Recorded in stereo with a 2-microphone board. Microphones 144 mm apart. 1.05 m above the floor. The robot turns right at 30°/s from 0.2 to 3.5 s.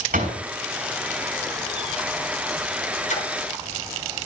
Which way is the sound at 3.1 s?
60° left (ahead or behind).